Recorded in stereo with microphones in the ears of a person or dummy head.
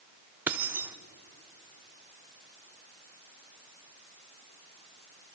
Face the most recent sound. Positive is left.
turn(degrees=-10)  # may be behind; listen again after turning